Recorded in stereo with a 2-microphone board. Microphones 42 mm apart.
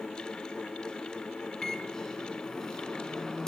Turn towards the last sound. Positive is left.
turn(degrees=15)  # may be behind; listen again after turning